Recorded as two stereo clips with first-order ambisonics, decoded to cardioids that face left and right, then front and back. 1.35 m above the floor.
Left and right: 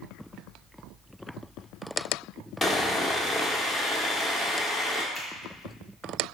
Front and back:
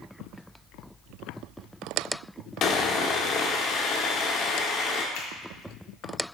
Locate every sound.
2.6 s sawing: straight ahead, 1.0 m
5.2 s a finger snap: straight ahead, 1.9 m